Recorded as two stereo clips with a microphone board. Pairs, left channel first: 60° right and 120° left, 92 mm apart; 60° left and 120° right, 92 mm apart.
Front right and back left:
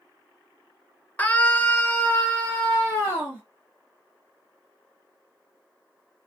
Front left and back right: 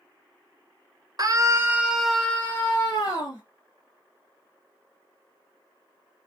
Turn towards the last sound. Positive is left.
turn(degrees=20)